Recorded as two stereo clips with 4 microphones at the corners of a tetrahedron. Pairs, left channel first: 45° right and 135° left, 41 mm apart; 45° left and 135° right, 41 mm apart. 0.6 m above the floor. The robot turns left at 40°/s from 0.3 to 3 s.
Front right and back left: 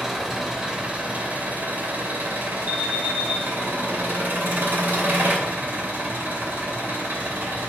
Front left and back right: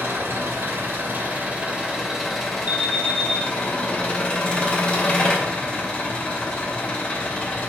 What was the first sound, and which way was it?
An engine running, 140° right.